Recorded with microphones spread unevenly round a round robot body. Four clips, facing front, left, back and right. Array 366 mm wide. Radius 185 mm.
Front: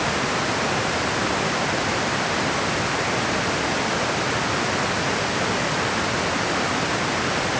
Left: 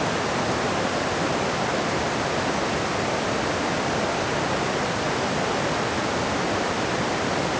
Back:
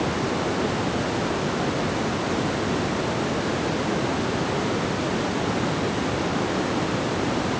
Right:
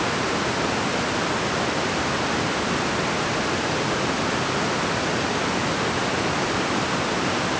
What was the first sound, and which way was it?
Only background noise.